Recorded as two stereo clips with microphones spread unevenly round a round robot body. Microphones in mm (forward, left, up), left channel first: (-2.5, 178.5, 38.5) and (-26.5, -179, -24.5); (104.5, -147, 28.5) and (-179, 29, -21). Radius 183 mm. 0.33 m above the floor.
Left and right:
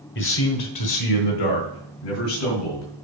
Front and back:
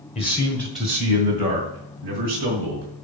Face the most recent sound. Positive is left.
turn(degrees=95)